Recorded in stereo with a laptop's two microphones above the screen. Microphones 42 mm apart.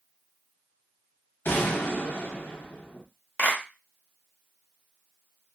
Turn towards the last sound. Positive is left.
turn(degrees=35)  # may be behind; listen again after turning